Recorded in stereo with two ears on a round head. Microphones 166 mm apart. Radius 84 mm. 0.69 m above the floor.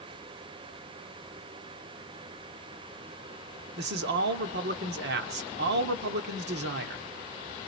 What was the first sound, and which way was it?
A man speaking, 65° right (ahead or behind).